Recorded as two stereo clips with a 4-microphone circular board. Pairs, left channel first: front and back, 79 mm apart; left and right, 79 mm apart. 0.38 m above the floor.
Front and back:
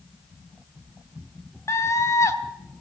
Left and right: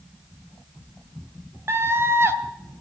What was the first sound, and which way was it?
A scream, 40° right.